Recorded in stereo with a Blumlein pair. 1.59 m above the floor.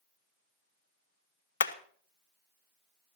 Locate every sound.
1.6 s hammering: 65° left, 0.9 m